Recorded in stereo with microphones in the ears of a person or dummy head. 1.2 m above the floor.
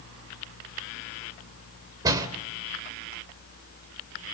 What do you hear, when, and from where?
2.0 s a door slam: 20° right (ahead or behind), 2.5 m